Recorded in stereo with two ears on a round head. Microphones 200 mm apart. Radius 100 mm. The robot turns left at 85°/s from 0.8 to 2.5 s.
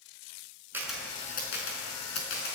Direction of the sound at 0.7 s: 10° right (ahead or behind).